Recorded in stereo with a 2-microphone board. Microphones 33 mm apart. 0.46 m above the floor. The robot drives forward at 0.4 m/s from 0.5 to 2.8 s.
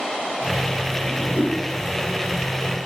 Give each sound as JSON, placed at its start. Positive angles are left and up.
{"t": 1.1, "sound": "a whoosh", "side_deg": 55, "distance_m": 3.0}